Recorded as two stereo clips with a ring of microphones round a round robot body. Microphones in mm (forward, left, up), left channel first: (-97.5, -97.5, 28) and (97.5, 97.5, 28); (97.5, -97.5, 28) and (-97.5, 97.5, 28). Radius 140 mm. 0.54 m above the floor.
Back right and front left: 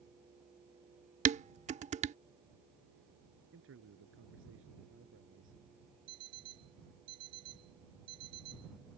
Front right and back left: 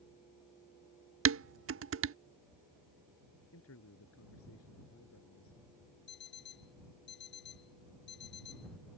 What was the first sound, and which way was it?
Dishes clattering, 105° left.